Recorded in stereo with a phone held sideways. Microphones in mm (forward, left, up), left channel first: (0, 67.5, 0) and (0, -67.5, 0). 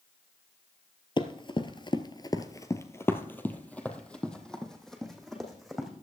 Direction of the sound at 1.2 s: 35° left (ahead or behind).